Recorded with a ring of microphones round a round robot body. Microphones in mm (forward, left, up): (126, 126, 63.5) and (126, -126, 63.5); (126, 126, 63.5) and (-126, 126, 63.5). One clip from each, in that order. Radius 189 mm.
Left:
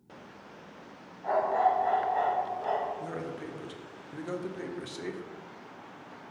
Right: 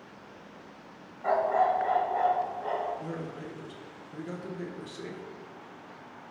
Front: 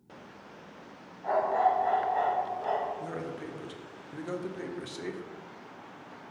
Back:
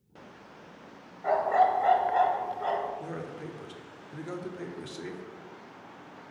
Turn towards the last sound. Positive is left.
turn(degrees=75)